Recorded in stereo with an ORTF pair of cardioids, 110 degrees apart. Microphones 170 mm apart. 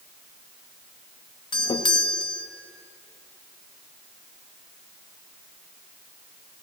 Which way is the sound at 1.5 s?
30° left.